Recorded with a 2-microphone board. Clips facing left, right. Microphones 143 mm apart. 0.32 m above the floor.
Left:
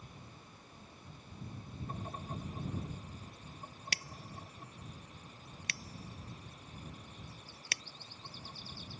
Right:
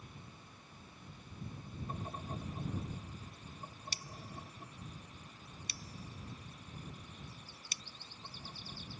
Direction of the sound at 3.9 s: 85° left.